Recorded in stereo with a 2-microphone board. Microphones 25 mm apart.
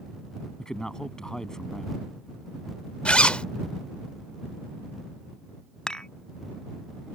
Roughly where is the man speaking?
Left.